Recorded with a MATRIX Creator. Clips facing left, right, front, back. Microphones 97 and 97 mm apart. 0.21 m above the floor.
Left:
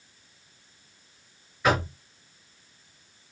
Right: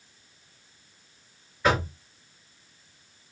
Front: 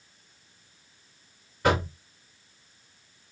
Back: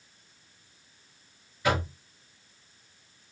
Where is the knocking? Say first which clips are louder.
Even, front 3 dB; 5° left, 3 m.